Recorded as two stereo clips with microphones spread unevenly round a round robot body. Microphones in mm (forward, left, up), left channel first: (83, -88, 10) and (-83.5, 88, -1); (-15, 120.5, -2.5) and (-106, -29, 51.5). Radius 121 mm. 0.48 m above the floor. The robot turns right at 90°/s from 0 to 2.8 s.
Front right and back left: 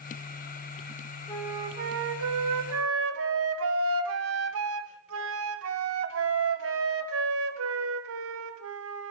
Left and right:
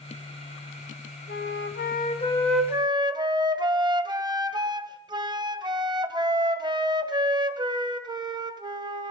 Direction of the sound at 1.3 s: 30° left.